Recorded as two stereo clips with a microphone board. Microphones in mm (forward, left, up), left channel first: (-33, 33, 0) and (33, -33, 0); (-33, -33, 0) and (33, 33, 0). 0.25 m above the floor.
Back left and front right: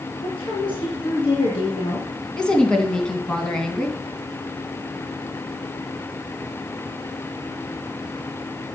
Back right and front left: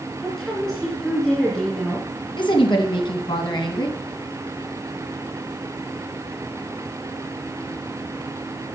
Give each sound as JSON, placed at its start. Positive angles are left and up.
{"t": 0.2, "sound": "a woman speaking", "azimuth_deg": 140, "distance_m": 2.5}
{"t": 2.4, "sound": "a woman speaking", "azimuth_deg": -145, "distance_m": 2.5}